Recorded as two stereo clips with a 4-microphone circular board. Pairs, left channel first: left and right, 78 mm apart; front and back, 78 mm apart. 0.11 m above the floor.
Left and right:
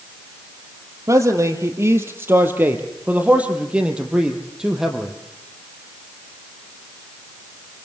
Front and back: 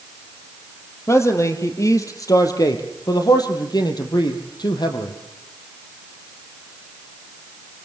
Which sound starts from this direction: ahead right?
A man speaking, at 1.1 s.